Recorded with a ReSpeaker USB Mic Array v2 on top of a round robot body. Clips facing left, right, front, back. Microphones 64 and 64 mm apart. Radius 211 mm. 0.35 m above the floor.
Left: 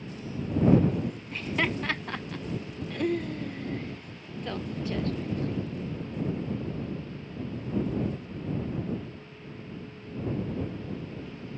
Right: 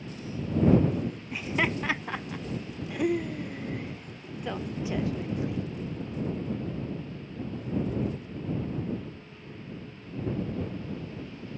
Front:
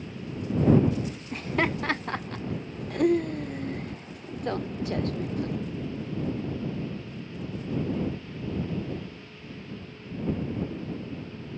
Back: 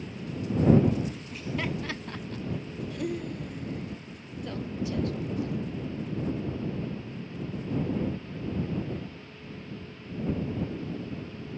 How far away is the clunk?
I don't hear a clunk.